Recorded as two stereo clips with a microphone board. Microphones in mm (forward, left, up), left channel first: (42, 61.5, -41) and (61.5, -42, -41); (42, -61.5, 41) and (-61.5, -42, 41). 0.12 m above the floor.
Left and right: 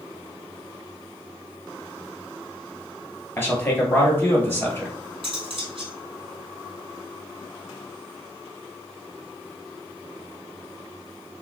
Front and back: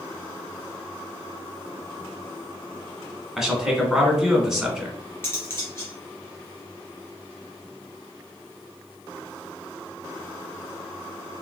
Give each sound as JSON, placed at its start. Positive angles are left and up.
{"t": 3.4, "sound": "a man speaking", "azimuth_deg": 90, "distance_m": 1.2}
{"t": 5.2, "sound": "cutlery clinking", "azimuth_deg": -75, "distance_m": 1.7}